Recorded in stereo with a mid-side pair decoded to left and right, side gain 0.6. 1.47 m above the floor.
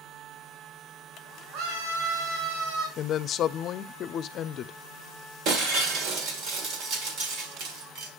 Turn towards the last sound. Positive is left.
turn(degrees=-70)